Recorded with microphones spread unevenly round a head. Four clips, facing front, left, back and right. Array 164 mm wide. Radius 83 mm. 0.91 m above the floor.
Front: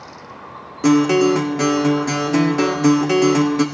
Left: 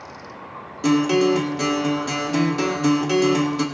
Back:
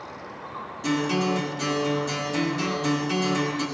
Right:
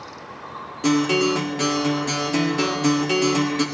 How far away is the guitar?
About 1.6 m.